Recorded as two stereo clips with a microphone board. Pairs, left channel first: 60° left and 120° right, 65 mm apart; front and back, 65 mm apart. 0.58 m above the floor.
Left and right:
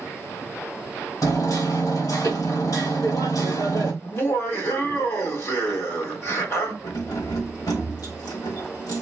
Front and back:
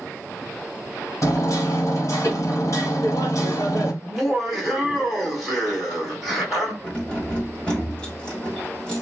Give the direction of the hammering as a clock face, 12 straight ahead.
11 o'clock.